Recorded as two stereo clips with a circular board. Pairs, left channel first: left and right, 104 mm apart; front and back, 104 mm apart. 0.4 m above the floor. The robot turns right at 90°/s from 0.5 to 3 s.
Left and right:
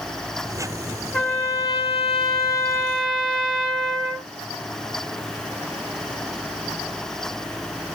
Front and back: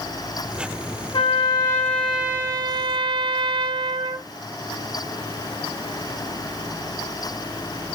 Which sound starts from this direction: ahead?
A trumpet, at 1.1 s.